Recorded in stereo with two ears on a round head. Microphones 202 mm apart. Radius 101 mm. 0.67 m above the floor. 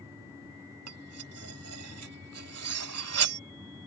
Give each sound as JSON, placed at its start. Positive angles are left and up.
{"t": 0.9, "sound": "cutlery clinking", "side_deg": -70}